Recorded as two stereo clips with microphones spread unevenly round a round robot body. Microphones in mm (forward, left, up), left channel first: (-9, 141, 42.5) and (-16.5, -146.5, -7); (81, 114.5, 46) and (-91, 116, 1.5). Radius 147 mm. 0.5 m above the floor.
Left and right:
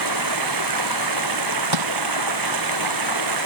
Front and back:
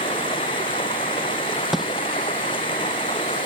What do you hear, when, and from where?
0.0 s running water: 75° right
1.7 s crushing: 90° right